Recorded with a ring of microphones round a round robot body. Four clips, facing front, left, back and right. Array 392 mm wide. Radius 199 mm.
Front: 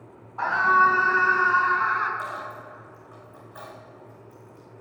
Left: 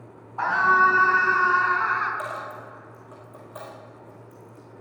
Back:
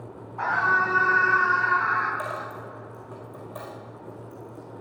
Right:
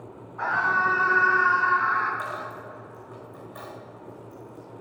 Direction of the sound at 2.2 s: 145° left.